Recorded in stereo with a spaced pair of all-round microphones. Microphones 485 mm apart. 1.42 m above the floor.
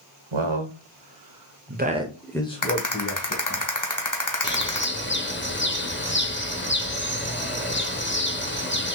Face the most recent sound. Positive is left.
turn(degrees=20)  # may be behind; listen again after turning